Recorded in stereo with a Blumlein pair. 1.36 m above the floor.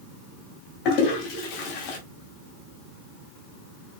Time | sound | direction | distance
0.8 | a toilet flushing | 45° left | 2.5 m